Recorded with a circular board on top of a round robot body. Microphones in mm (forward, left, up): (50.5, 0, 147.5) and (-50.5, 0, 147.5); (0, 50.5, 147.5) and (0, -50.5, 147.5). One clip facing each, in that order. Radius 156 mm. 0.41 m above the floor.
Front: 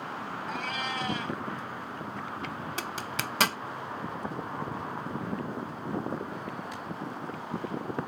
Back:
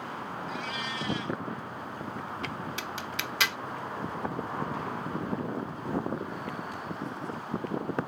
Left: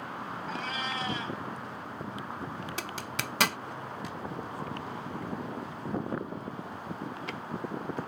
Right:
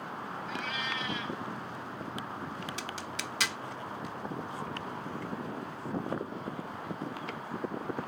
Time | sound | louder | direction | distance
0.5 | a cat meowing | front 4 dB, left 2 dB | 40° left | ?
2.8 | a zipper | front 1 dB, left 2 dB | 50° left | ?